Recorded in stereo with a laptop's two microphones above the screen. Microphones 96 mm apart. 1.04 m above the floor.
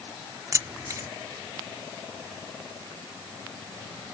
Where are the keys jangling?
35° right (ahead or behind).